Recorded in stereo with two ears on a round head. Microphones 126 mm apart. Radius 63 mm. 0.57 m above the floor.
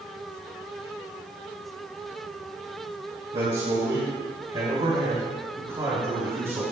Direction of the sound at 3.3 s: 45° right (ahead or behind).